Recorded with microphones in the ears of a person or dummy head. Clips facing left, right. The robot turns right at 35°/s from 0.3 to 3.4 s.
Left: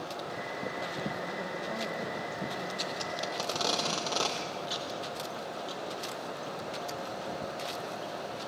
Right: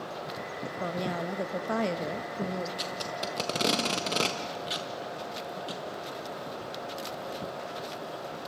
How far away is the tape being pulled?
About 1.2 m.